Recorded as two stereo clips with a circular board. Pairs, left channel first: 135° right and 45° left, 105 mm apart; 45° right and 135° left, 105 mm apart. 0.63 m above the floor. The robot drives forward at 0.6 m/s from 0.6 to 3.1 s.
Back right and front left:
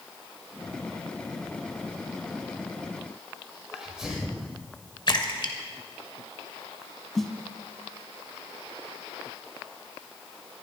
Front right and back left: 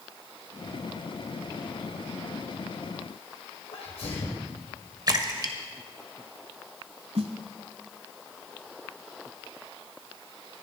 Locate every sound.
3.7 s a sneeze: 35° right, 2.5 m
5.1 s a splash: 175° right, 1.5 m
7.2 s a snare drum: 140° left, 1.2 m